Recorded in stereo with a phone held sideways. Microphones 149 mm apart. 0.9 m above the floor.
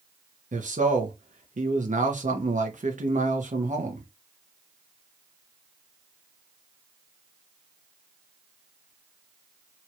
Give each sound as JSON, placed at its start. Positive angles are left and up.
{"t": 0.5, "sound": "a man speaking", "side_deg": -60, "distance_m": 1.0}